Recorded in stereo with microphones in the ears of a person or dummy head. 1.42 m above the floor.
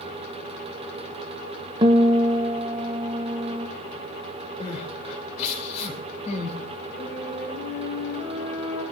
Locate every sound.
1.8 s a guitar: 25° right (ahead or behind), 0.8 m
4.6 s crying: 40° left (ahead or behind), 2 m
7.0 s a flute: 10° left (ahead or behind), 7 m